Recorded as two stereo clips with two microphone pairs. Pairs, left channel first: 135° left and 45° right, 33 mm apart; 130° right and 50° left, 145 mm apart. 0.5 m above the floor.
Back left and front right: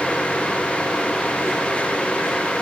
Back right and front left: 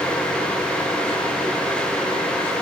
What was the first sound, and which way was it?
Only background noise.